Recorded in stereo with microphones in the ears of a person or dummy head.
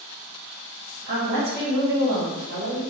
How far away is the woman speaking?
About 1.7 m.